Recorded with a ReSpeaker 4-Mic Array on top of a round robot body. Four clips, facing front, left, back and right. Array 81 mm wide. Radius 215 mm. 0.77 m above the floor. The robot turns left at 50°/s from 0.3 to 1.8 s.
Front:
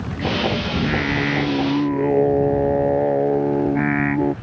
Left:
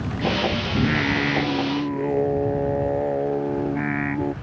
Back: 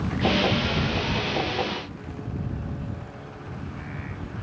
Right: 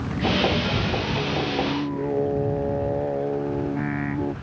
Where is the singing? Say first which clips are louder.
Left 4 dB, front 6 dB; 65° left; by 4.3 s 10° left.